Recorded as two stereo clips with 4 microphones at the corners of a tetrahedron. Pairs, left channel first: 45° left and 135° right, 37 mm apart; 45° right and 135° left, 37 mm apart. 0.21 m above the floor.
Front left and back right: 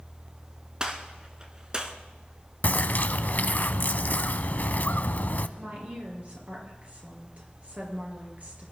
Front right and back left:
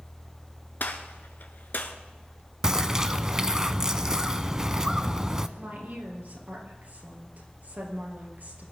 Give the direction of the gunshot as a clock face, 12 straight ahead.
2 o'clock.